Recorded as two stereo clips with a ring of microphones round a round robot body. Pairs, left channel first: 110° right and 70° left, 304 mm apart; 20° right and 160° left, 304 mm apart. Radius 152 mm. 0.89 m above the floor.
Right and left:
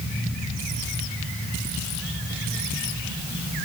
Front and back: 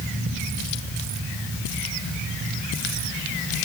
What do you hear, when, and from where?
Only background noise.